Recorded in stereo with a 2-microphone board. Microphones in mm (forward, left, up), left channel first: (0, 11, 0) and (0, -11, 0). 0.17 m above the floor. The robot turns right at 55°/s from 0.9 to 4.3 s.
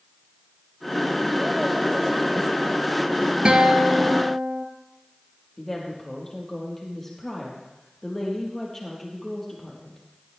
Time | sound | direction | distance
3.5 | a guitar | 135° right | 1.6 m
5.6 | a woman speaking | 10° left (ahead or behind) | 4.5 m